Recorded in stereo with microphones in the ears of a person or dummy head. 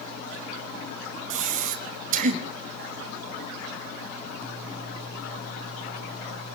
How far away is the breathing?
About 1.6 m.